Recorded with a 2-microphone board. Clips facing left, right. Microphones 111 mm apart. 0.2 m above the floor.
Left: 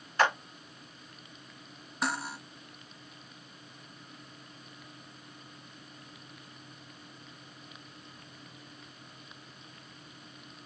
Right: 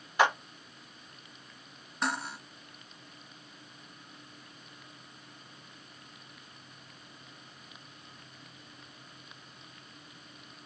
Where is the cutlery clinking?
5° left (ahead or behind), 0.6 m.